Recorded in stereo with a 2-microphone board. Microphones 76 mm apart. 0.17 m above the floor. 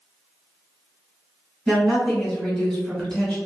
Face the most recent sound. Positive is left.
turn(degrees=5)  # may be behind; listen again after turning